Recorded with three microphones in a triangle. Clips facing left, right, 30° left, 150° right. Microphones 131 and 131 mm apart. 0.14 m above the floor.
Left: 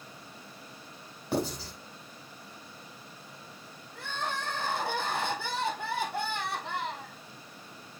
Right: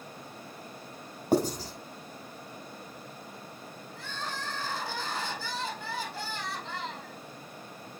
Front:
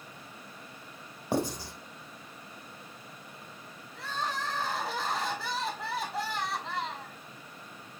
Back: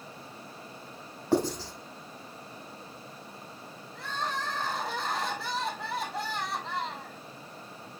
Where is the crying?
120° left, 1.8 m.